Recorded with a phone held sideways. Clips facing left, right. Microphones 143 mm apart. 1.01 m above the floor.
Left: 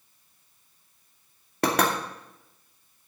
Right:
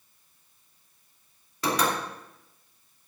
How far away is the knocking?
About 2.5 m.